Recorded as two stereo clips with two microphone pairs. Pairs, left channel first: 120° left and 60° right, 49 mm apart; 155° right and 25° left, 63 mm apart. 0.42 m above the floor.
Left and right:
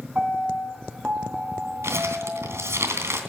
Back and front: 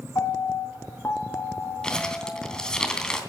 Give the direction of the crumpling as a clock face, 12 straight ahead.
3 o'clock.